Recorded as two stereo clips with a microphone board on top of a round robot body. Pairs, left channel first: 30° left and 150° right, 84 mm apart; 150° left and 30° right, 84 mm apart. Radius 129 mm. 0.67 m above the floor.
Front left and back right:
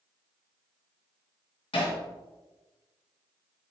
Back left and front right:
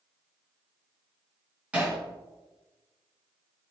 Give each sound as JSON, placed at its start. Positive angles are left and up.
{"t": 1.7, "sound": "hammering", "azimuth_deg": 45, "distance_m": 3.5}